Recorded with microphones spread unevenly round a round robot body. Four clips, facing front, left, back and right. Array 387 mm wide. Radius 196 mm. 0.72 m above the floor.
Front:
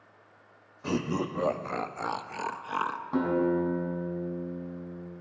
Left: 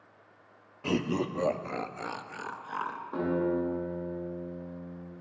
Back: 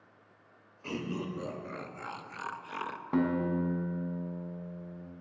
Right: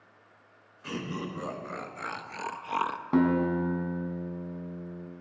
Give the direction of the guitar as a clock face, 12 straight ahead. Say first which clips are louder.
Right 4 dB, front 3 dB; 3 o'clock.